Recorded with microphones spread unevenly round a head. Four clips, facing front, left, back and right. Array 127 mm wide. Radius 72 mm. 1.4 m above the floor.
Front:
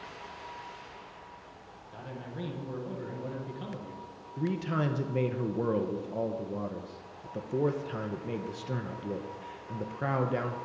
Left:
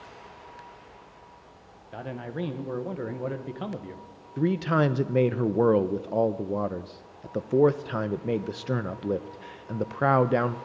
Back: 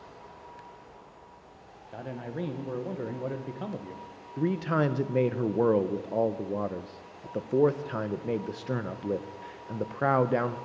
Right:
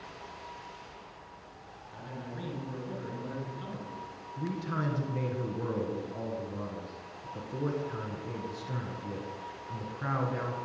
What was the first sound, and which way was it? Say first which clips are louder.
A man speaking: left 8 dB, back 5 dB; 120° left.